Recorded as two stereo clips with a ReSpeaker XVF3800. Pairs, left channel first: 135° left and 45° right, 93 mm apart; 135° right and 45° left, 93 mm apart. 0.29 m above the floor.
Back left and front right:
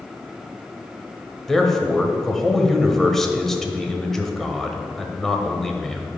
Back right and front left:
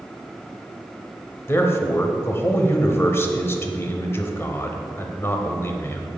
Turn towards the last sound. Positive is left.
turn(degrees=-145)